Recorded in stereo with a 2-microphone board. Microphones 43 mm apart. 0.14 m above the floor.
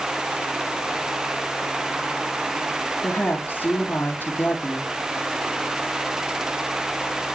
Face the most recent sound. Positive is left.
turn(degrees=45)  # may be behind; listen again after turning